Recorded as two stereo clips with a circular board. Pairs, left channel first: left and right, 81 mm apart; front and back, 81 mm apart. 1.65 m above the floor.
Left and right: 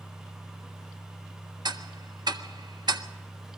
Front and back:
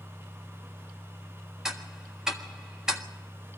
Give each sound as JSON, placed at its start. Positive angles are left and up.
{"t": 1.6, "sound": "ticking", "azimuth_deg": -95, "distance_m": 1.6}